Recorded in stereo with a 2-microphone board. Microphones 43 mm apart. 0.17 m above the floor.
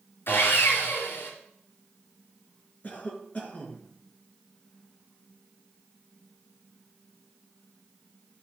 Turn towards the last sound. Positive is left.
turn(degrees=35)  # may be behind; listen again after turning